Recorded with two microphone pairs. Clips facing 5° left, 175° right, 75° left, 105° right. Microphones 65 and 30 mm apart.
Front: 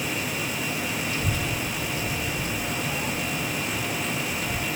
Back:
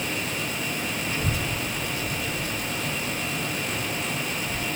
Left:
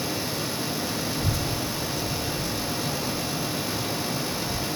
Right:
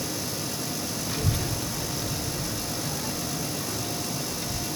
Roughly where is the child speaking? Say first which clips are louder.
Even, left 2 dB; behind right.